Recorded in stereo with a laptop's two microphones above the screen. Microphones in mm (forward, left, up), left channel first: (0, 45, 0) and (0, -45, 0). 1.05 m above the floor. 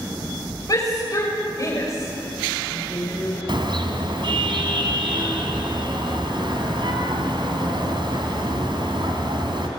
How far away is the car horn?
About 3.5 m.